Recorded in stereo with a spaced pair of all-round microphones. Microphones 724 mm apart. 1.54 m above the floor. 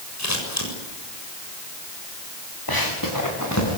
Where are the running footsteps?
30° left (ahead or behind), 8 m; by 3.8 s 20° left (ahead or behind), 7.5 m.